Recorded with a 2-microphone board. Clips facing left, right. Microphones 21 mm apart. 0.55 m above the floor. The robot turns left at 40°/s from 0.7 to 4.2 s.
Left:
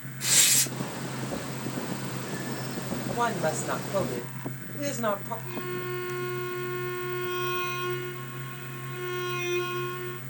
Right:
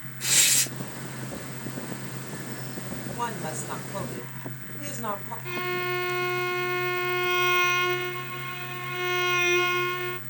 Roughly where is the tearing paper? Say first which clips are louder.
Right 1 dB; centre.